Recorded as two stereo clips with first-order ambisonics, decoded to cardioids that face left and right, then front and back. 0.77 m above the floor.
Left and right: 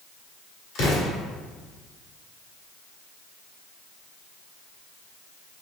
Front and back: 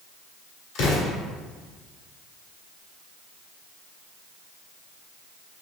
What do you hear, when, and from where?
0.8 s an explosion: 40° left, 1.4 m